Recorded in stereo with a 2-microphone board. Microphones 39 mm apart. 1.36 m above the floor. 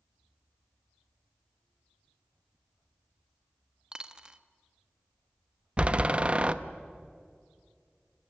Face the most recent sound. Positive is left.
turn(degrees=-30)  # may be behind; listen again after turning